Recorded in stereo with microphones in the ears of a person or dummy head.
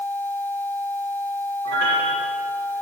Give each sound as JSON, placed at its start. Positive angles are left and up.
{"t": 1.6, "sound": "a piano", "side_deg": -80, "distance_m": 7.0}